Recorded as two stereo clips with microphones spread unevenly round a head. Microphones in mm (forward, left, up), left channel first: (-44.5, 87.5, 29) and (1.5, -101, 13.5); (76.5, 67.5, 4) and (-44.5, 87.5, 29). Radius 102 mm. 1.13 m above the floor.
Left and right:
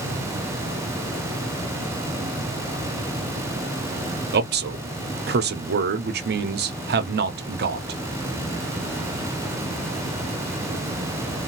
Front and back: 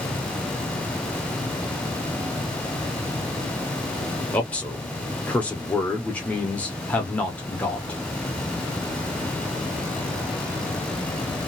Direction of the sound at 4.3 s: 80° right.